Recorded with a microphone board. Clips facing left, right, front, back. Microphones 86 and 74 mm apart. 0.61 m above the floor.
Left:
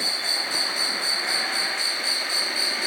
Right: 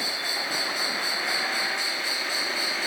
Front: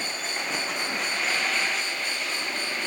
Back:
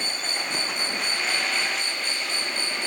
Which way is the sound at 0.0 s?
90° right.